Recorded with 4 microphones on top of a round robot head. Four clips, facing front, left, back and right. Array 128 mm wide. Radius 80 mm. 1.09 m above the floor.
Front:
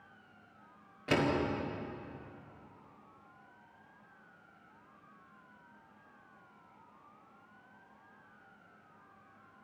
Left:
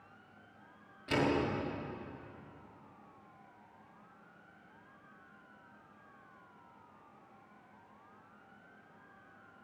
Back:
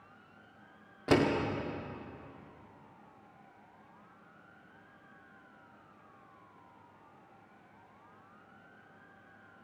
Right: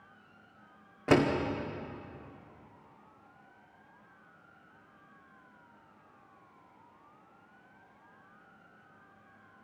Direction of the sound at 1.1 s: 120° right.